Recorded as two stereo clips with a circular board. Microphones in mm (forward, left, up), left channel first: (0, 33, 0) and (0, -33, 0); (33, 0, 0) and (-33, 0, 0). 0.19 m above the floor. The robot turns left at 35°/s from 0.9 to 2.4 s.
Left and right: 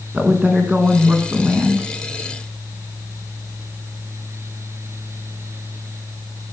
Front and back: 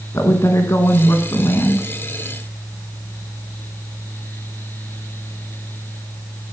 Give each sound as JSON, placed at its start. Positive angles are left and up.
{"t": 0.1, "sound": "a woman speaking", "azimuth_deg": -25, "distance_m": 2.0}